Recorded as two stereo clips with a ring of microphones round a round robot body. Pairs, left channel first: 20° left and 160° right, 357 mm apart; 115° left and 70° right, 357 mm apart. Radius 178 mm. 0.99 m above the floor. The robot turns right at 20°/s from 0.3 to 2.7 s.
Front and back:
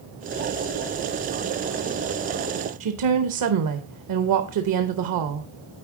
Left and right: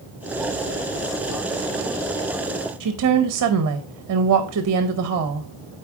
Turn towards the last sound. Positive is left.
turn(degrees=-115)